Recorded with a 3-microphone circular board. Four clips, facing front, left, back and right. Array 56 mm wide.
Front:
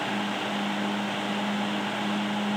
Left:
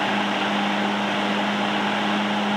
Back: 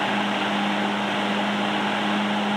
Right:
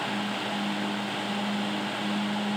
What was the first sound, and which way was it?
Only background noise.